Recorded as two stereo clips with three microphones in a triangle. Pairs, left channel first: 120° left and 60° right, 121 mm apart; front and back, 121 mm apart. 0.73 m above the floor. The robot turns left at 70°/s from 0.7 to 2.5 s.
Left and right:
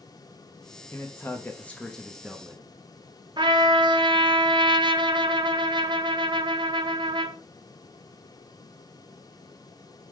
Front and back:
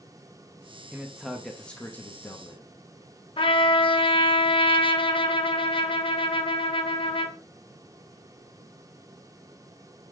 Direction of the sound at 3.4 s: 25° right.